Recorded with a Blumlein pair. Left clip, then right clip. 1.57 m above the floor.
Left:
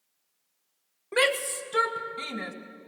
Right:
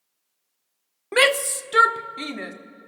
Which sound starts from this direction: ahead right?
A shout, at 1.1 s.